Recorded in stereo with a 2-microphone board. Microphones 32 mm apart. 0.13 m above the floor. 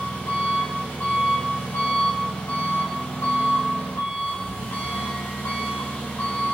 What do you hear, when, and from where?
0.0 s an engine running: 80° left, 5 m